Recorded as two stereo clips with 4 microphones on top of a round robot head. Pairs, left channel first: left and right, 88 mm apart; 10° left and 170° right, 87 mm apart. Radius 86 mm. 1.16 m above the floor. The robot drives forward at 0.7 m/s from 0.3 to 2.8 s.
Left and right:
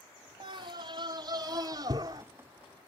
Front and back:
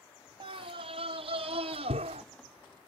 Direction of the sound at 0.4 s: 135° right.